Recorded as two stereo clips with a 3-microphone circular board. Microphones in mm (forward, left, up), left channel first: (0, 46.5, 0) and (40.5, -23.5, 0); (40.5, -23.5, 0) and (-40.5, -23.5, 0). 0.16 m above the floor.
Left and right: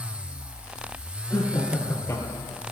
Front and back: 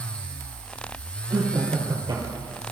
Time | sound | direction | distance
1.3 | laughter | 175° left | 4.5 m